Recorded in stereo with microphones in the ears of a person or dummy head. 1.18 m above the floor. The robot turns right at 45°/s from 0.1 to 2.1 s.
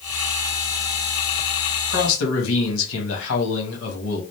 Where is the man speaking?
75° left (ahead or behind), 1.3 m; by 4.2 s 85° left, 1.3 m.